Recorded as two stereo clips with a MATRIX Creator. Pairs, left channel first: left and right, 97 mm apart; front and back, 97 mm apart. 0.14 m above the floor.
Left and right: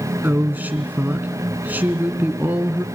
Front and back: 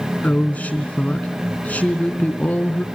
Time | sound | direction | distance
0.2 | a woman speaking | 50° right | 1.2 m